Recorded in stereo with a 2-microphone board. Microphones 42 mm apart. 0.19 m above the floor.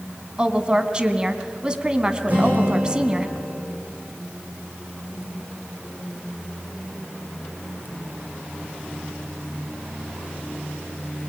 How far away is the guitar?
About 8 m.